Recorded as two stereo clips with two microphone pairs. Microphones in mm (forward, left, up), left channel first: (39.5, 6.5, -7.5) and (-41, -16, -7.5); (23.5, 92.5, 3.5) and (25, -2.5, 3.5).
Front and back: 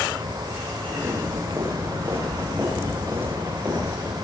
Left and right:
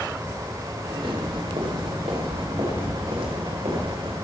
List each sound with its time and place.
0.8 s footsteps: 110° right, 9.5 m; by 4.2 s 100° right, 12 m